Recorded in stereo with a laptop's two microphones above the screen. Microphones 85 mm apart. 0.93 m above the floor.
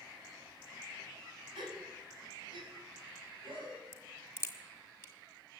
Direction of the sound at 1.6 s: 75° right (ahead or behind).